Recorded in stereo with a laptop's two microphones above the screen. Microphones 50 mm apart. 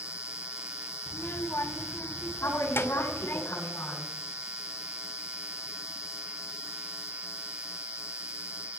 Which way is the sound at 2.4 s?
65° left (ahead or behind).